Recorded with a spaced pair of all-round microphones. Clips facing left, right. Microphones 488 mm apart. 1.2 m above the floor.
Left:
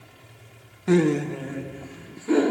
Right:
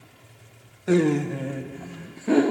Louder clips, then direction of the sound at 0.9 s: Even; 20° left (ahead or behind).